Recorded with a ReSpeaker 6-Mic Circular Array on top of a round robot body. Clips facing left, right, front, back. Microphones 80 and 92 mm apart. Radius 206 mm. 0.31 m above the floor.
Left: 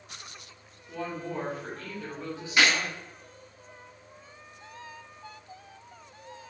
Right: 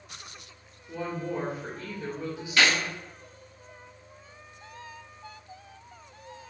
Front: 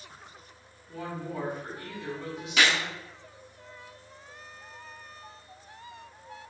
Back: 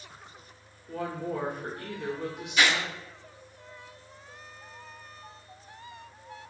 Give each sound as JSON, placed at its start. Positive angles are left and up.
{"t": 0.9, "sound": "a woman speaking", "azimuth_deg": -165, "distance_m": 1.8}
{"t": 2.6, "sound": "a gunshot", "azimuth_deg": 15, "distance_m": 0.9}